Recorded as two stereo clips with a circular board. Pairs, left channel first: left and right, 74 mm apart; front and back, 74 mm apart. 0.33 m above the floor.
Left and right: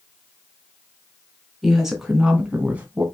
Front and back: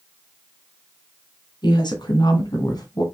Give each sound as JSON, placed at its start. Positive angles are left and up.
{"t": 1.6, "sound": "a woman speaking", "azimuth_deg": -5, "distance_m": 3.5}